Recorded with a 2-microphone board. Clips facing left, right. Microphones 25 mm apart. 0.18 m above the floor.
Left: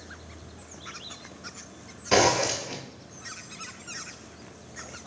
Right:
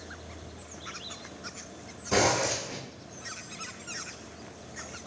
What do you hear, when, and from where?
2.1 s a zipper: 50° left (ahead or behind), 0.8 m